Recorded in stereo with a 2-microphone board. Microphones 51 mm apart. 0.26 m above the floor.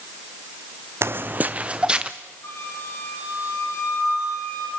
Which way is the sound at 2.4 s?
75° left (ahead or behind).